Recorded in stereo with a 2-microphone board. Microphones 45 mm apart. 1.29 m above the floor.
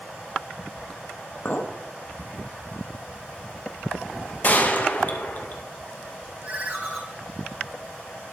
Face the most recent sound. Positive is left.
turn(degrees=-35)  # may be behind; listen again after turning